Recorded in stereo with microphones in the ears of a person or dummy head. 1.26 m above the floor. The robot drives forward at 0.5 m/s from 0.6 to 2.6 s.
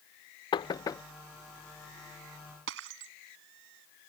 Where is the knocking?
20° left (ahead or behind); by 1.0 s 15° left (ahead or behind).